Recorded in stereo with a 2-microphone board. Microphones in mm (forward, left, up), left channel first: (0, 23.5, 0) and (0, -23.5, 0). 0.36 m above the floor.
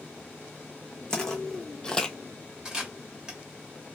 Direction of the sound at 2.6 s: 15° right (ahead or behind).